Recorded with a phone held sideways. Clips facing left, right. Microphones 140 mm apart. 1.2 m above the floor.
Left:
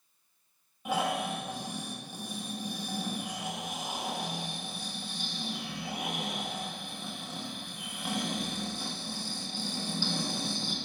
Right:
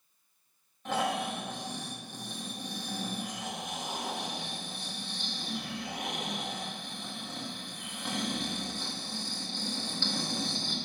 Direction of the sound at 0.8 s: 10° left (ahead or behind).